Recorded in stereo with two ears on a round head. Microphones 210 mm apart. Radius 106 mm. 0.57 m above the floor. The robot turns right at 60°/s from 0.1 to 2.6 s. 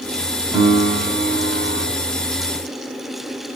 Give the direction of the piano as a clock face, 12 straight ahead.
6 o'clock.